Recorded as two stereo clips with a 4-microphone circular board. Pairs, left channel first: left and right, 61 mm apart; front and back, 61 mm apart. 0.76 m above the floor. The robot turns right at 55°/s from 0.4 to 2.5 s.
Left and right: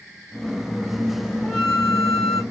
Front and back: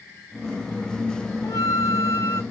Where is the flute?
10° left, 1.3 m; by 2.4 s 65° left, 1.3 m.